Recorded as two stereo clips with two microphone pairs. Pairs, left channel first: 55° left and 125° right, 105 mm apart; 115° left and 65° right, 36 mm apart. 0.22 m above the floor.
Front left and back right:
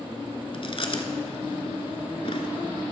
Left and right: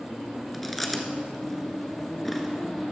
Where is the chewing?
30° left, 1.0 m.